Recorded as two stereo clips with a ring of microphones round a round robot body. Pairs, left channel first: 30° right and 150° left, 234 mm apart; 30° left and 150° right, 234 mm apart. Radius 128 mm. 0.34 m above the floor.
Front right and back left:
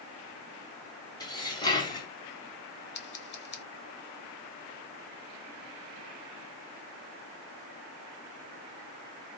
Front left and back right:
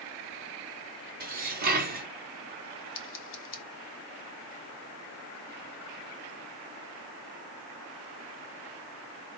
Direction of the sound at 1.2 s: 100° right.